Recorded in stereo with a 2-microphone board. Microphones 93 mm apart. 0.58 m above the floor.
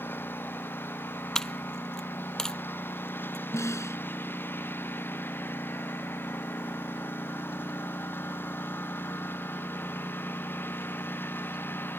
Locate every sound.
0.0 s a lawn mower: 20° left (ahead or behind)
1.4 s a dropped coin: 5° left (ahead or behind)
3.5 s a snare drum: 30° left (ahead or behind)